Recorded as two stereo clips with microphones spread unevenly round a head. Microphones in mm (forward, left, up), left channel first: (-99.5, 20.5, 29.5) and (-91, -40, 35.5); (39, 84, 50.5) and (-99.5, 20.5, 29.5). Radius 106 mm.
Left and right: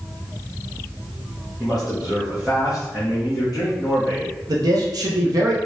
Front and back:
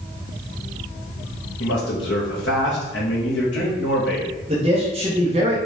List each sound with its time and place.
1.6 s a man speaking: 5° left, 2 m
4.5 s a man speaking: 90° right, 1.8 m